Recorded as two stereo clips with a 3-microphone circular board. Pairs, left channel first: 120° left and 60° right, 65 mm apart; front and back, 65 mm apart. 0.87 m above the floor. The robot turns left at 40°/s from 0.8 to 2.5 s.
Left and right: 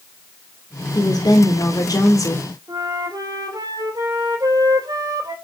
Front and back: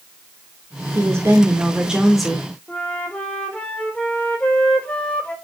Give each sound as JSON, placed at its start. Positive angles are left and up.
{"t": 0.9, "sound": "a woman speaking", "azimuth_deg": 140, "distance_m": 2.0}
{"t": 2.7, "sound": "a flute", "azimuth_deg": -70, "distance_m": 2.5}